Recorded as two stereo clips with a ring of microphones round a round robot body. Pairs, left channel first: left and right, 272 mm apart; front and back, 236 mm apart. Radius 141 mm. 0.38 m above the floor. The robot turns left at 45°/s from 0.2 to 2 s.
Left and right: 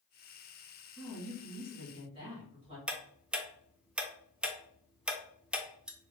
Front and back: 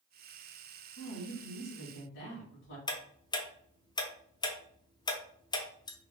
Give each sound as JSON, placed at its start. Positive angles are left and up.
{"t": 1.0, "sound": "a woman speaking", "azimuth_deg": 20, "distance_m": 1.9}
{"t": 2.9, "sound": "ticking", "azimuth_deg": -10, "distance_m": 0.5}